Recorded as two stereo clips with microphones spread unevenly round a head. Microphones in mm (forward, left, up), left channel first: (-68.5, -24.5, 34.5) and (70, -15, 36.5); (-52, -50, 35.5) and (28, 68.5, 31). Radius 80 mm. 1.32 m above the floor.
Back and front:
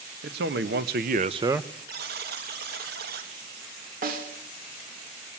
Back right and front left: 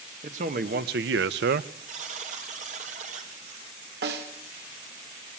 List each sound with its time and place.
0.2 s a man speaking: 10° left, 1.6 m; by 1.7 s 95° left, 0.8 m
1.9 s a buzzer: 15° left, 2.5 m
4.0 s a snare drum: 40° left, 3 m